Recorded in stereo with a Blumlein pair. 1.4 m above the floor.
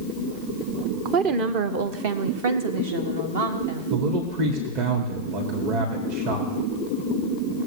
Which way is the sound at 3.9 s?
50° right.